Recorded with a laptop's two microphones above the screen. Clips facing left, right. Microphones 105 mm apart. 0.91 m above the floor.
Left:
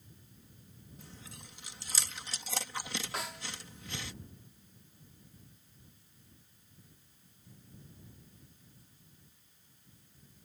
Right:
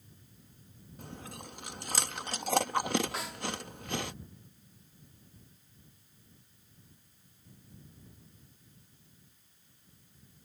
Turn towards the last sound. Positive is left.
turn(degrees=0)  # may be behind; listen again after turning